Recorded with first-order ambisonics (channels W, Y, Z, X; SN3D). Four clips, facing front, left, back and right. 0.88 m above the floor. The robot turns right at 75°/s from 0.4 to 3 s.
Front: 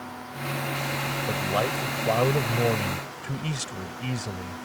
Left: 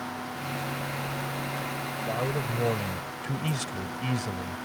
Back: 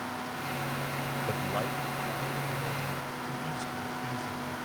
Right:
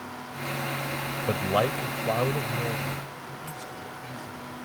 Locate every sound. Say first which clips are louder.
1.3 s a man speaking: right 7 dB, front 8 dB; 85° right; by 4.7 s 45° left